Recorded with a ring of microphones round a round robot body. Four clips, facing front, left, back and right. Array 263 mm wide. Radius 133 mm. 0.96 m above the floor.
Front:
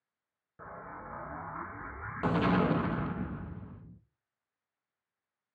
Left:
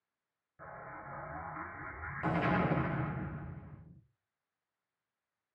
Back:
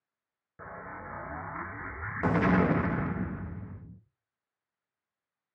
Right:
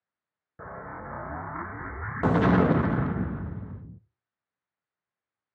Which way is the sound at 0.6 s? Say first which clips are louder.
Right 8 dB, back 2 dB; 100° right.